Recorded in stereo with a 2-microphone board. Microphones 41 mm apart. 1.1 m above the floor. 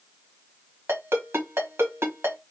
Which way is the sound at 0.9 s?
80° right.